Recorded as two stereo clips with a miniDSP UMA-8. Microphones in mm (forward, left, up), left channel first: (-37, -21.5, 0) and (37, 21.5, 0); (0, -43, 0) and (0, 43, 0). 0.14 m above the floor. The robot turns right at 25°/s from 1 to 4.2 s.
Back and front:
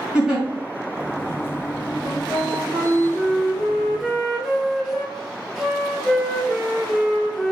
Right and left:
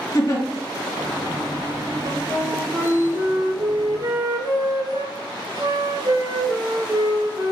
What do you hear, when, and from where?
0.1 s a giggle: 45° right, 2 m
2.0 s a flute: 65° left, 0.9 m; by 7.5 s 120° left, 0.9 m